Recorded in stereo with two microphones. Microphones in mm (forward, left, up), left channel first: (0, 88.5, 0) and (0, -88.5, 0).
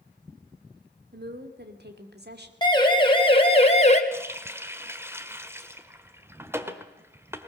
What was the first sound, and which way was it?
A woman speaking, 65° right (ahead or behind).